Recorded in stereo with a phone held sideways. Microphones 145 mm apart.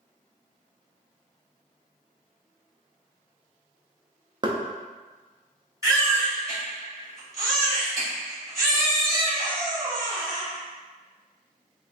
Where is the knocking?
30° right (ahead or behind), 0.6 m.